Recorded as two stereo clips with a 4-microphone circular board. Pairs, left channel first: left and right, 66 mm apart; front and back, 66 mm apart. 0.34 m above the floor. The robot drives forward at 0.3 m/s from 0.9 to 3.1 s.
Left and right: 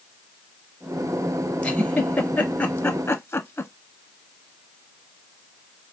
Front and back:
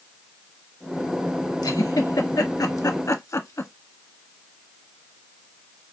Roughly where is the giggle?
Ahead.